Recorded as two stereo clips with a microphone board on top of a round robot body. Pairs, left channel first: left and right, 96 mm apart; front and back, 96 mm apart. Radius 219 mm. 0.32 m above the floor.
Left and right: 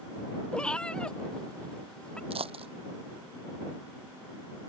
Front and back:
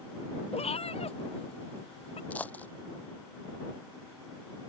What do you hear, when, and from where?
0.5 s a cat meowing: 10° left
2.3 s a dropped coin: 75° right